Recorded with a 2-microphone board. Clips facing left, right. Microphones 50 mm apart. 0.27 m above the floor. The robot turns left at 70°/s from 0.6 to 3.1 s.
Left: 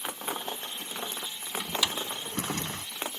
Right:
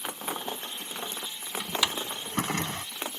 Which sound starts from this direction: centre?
A drawer, at 1.6 s.